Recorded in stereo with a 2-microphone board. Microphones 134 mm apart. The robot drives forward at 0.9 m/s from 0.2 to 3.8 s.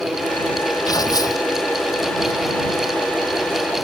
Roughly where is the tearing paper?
Left.